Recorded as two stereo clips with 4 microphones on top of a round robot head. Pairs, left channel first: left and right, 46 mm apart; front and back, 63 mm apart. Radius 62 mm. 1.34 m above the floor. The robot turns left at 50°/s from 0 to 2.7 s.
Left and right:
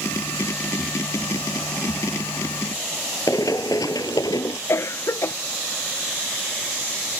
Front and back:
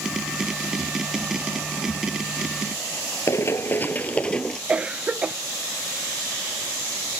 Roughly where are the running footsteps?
Ahead left.